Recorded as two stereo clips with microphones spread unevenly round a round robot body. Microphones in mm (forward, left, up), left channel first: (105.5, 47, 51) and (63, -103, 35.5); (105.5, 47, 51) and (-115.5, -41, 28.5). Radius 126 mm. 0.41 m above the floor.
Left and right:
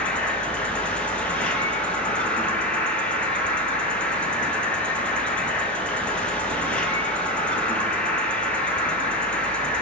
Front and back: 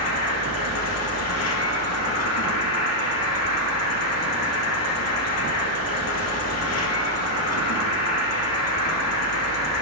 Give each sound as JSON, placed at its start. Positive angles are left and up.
{"t": 0.0, "sound": "an insect", "azimuth_deg": -10, "distance_m": 1.7}